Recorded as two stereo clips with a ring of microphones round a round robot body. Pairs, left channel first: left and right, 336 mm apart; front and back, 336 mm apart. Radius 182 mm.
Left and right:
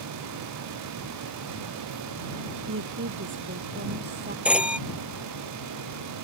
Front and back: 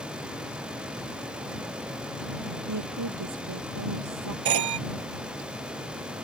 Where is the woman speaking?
140° right; by 4.3 s 150° right.